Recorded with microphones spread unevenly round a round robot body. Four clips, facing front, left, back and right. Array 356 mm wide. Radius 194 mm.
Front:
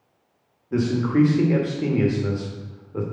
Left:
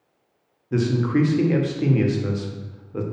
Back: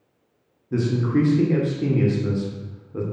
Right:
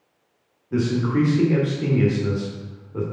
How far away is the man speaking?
About 1.5 m.